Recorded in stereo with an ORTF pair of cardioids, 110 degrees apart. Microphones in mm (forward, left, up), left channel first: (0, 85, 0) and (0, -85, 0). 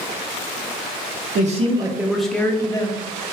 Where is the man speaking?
50° right, 0.6 m; by 3.0 s 25° left, 1.0 m.